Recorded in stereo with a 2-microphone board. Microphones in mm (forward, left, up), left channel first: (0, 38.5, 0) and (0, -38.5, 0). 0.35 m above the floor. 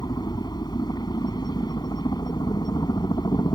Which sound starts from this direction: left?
A helicopter, at 0.0 s.